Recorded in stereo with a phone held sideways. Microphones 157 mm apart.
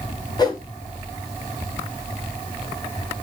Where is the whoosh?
25° left (ahead or behind), 1.0 m.